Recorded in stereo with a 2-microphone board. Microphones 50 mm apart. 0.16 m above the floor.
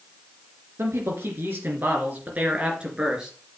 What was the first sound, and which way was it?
A man speaking, 55° right (ahead or behind).